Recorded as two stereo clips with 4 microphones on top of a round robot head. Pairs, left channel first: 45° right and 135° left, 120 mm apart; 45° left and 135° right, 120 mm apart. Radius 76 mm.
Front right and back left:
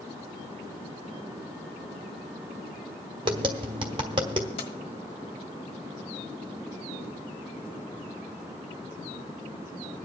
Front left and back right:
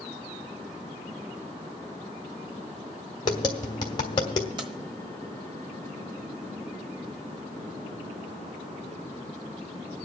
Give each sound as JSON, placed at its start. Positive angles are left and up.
{"t": 3.2, "sound": "tapping", "azimuth_deg": 95, "distance_m": 1.2}
{"t": 4.6, "sound": "keys jangling", "azimuth_deg": -85, "distance_m": 1.2}